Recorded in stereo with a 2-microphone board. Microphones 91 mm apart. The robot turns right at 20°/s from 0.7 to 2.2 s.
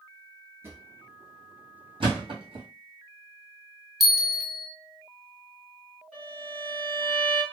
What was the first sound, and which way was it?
A drawer, 25° right (ahead or behind).